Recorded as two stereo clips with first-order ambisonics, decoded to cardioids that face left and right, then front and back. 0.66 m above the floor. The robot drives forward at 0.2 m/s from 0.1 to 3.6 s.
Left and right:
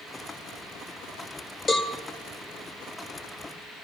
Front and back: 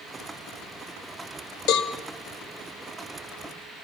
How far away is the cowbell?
About 1.7 m.